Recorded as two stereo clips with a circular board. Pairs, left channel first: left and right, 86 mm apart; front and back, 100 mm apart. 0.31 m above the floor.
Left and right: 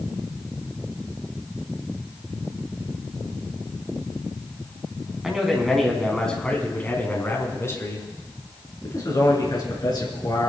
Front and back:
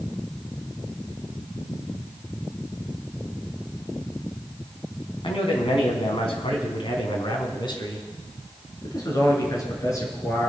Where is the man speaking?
10° right, 3 m; by 10.5 s 60° left, 4.5 m.